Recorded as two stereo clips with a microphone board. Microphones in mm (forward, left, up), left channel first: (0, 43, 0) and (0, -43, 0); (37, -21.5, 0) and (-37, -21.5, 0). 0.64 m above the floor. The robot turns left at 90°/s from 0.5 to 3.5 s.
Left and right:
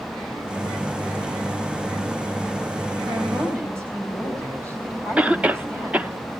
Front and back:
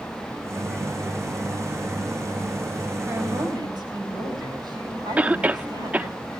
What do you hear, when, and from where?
3.0 s a woman speaking: 110° right, 4.5 m; by 6.2 s 150° right, 4.5 m
5.2 s a cough: 135° right, 0.5 m